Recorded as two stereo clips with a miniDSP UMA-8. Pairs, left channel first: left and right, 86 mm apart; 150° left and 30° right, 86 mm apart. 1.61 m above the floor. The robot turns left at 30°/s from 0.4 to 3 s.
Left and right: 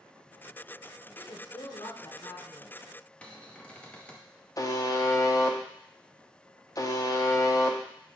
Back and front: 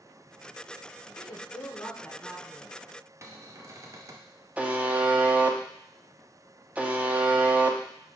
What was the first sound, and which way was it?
A woman speaking, 110° left.